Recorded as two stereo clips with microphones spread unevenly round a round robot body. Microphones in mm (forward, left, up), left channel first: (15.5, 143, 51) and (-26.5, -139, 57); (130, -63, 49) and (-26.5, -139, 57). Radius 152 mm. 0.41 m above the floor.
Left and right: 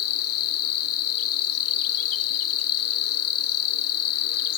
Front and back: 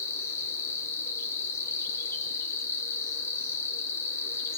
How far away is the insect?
About 0.8 m.